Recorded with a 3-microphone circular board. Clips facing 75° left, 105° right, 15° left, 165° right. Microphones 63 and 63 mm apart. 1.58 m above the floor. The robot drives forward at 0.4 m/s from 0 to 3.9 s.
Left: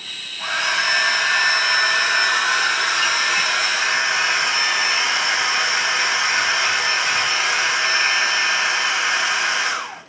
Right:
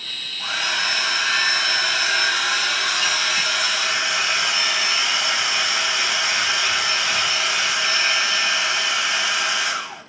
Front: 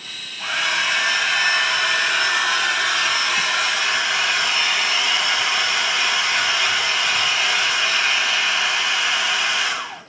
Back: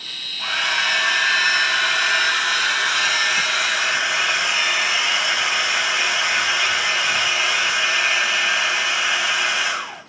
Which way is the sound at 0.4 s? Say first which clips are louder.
Left 4 dB, even; 100° left.